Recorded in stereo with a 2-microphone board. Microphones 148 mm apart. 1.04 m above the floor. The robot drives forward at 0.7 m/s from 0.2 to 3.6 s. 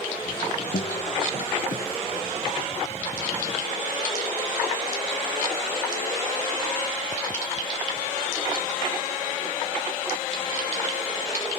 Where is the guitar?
55° left (ahead or behind).